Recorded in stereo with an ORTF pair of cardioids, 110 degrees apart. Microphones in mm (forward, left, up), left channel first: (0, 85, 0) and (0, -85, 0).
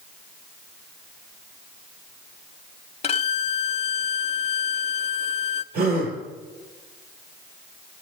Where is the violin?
35° left, 0.8 m.